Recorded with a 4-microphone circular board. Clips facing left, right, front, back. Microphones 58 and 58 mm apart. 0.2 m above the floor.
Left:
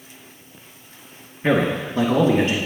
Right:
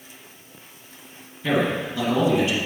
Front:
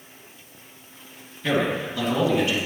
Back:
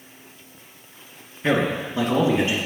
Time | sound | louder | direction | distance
1.4 | a man speaking | left 3 dB, back 2 dB | 125° left | 3 m